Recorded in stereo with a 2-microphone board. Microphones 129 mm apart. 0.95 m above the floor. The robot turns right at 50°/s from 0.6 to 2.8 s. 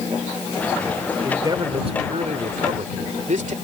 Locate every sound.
1.2 s a man speaking: 160° right; by 3.5 s 80° right